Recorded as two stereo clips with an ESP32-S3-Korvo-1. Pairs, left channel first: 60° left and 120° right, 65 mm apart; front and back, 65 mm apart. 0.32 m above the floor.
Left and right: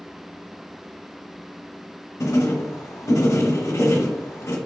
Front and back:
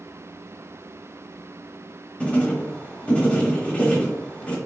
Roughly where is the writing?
Ahead left.